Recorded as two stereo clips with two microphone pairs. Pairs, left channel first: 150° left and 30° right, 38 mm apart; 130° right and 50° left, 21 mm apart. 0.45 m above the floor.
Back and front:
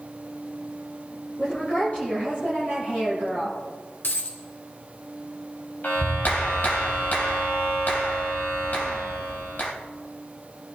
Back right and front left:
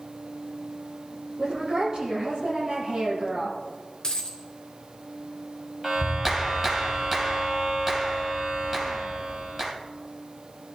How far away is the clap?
About 2 m.